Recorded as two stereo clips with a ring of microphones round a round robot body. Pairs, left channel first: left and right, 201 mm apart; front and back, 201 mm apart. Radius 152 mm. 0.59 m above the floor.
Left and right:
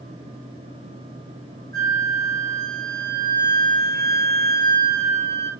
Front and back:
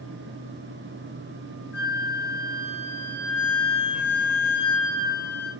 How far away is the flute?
About 7.5 m.